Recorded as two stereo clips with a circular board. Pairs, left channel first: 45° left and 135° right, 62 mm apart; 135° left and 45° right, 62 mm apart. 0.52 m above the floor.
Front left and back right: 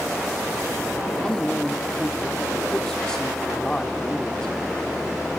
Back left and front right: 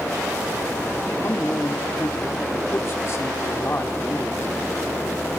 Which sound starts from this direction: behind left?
A man speaking, at 1.2 s.